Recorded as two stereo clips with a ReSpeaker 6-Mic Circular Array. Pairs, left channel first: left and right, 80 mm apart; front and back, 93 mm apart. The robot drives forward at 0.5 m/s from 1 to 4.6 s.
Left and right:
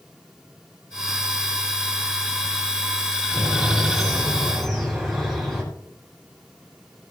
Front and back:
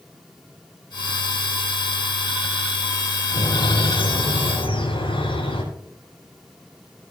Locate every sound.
3.3 s a bird: straight ahead, 7.5 m